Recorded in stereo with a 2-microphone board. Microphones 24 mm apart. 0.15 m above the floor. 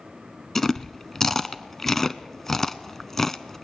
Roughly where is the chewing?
Centre.